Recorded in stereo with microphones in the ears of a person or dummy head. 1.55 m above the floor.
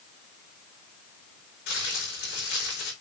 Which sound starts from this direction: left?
Crumpling, at 1.7 s.